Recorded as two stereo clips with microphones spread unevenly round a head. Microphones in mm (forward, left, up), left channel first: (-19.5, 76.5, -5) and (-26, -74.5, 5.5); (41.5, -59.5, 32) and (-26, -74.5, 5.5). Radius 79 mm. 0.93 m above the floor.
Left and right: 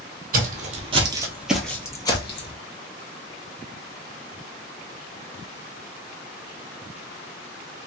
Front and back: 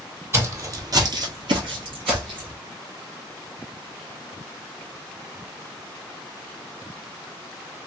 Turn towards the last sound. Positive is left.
turn(degrees=135)